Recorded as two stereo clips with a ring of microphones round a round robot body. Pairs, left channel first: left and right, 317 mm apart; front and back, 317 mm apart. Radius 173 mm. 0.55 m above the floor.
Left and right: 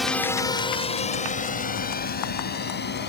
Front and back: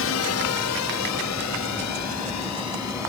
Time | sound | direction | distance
0.0 | a drone | straight ahead | ?